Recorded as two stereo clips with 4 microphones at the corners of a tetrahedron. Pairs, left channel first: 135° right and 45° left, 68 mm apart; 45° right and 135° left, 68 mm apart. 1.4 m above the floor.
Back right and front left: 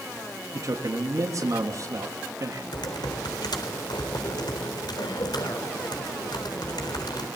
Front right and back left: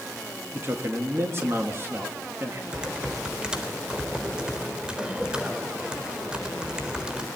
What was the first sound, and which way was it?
A man speaking, 85° left.